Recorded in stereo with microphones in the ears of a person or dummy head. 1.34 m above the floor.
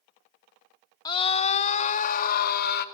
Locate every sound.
1.1 s a scream: 15° left (ahead or behind), 0.7 m; by 2.9 s 45° left (ahead or behind), 1.6 m